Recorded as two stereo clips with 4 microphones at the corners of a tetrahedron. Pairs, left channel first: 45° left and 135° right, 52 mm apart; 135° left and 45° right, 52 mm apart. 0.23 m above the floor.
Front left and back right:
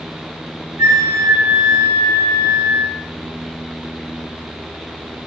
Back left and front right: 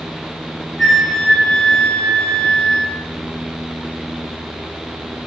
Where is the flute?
140° right, 5 m.